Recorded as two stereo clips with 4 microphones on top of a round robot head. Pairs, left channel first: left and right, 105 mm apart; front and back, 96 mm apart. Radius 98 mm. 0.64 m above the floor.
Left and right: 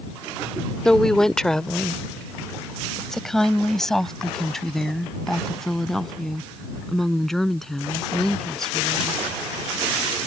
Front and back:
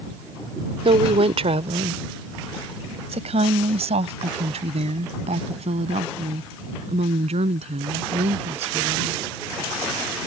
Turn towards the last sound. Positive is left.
turn(degrees=175)